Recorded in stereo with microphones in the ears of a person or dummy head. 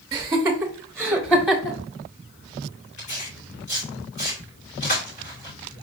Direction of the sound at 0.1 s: 20° right (ahead or behind).